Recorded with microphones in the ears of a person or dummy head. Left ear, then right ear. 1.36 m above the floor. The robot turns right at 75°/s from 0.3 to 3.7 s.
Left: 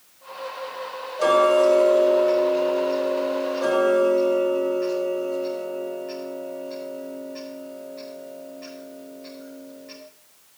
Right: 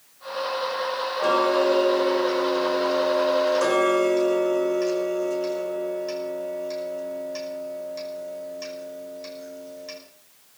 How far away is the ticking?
About 5.5 m.